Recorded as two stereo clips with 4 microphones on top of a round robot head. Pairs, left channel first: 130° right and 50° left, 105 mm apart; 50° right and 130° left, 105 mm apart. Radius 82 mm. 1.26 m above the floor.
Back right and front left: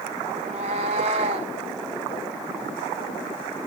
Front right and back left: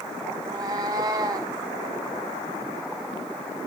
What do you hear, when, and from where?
0.4 s a cat meowing: 80° left, 1.0 m